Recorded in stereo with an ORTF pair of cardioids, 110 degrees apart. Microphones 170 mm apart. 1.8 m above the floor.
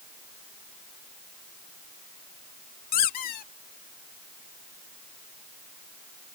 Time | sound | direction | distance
2.9 | a squeak | 65° left | ?